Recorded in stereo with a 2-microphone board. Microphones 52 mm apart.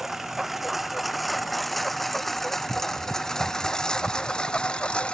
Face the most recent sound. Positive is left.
turn(degrees=20)  # may be behind; listen again after turning